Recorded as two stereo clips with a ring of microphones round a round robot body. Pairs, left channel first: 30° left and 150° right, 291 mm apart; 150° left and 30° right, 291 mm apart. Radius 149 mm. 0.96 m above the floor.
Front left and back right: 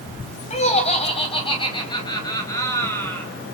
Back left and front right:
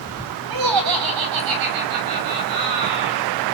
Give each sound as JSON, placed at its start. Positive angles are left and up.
{"t": 0.5, "sound": "laughter", "azimuth_deg": -40, "distance_m": 5.0}